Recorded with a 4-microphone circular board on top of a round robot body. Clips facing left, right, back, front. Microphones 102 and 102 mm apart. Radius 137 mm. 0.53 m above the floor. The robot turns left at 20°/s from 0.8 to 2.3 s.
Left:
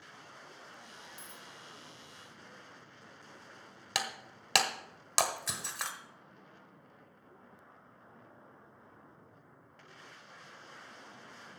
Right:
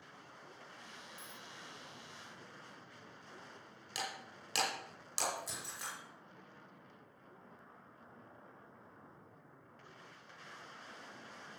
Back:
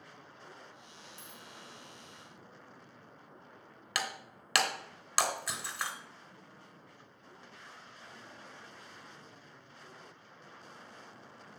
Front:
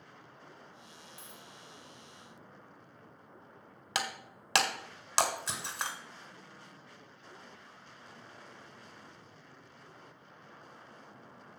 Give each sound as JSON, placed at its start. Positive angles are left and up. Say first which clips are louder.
{"t": 1.2, "sound": "a dropped coin", "louder": "left 1 dB, even", "azimuth_deg": 70, "distance_m": 2.0}
{"t": 4.0, "sound": "breaking glass", "louder": "left 5 dB, front 1 dB", "azimuth_deg": 65, "distance_m": 1.5}